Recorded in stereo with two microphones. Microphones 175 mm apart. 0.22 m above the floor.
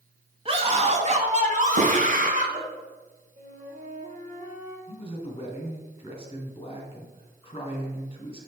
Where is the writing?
75° right (ahead or behind), 3.5 m.